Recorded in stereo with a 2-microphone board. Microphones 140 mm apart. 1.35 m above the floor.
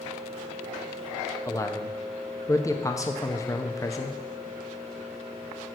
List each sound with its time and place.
1.5 s a man speaking: 20° left (ahead or behind), 0.7 m